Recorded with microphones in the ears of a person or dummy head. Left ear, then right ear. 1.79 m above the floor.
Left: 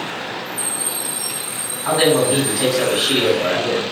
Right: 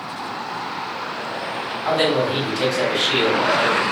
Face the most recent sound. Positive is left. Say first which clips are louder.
# left 4 dB
turn(degrees=-50)  # may be behind; listen again after turning